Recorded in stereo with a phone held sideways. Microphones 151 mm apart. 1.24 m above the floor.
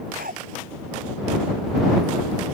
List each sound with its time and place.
0.2 s a dog barking: 80° right